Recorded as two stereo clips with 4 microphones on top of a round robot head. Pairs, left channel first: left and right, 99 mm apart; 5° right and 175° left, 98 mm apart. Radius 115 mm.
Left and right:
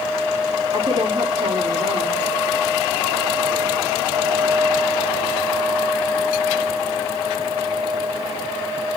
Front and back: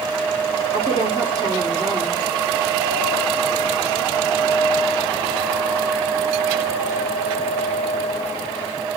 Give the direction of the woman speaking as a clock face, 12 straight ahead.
4 o'clock.